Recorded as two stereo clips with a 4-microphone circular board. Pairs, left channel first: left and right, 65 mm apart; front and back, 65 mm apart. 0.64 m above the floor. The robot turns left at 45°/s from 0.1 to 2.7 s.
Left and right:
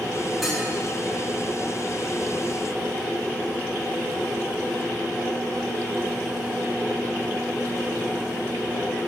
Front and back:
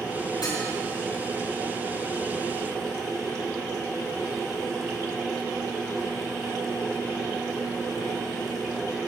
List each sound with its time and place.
0.4 s dishes clattering: straight ahead, 5.5 m; by 0.6 s 10° right, 5.5 m